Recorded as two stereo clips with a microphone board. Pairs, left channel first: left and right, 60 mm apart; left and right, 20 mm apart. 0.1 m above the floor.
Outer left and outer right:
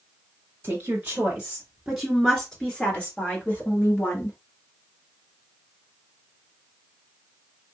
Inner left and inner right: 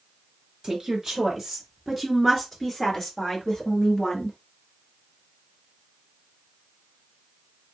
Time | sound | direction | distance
0.6 | a woman speaking | 30° right (ahead or behind) | 1.7 m